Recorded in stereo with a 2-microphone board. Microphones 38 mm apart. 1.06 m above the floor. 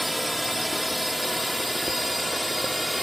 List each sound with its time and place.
0.0 s a drone: centre (ahead or behind)